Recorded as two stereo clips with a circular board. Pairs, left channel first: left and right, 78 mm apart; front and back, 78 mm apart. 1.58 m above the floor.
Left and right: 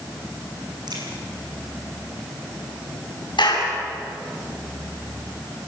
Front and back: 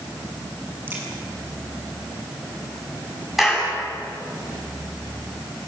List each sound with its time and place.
0.9 s a crack: 115° right, 7 m
3.4 s a clap: 95° left, 8.5 m